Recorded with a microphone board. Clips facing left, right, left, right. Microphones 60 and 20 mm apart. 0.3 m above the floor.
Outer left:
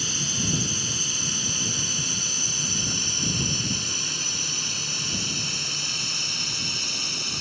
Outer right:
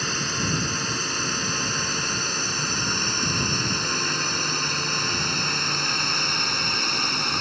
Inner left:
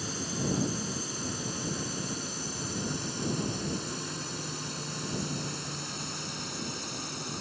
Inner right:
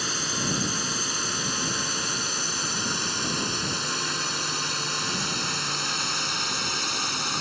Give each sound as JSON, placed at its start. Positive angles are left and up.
{"t": 0.0, "sound": "a drone", "side_deg": -50}